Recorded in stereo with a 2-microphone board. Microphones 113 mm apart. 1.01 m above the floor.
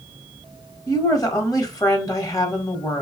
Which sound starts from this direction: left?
A woman speaking, at 0.9 s.